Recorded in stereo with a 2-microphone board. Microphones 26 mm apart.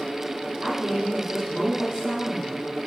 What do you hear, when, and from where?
0.6 s a woman speaking: 30° right (ahead or behind), 7 m